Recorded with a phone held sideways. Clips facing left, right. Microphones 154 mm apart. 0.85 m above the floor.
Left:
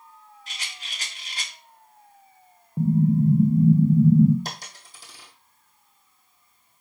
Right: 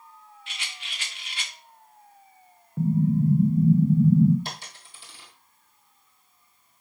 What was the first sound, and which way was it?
A rattle, 40° left (ahead or behind).